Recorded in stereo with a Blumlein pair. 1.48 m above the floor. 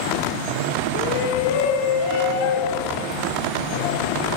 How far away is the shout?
About 1.0 m.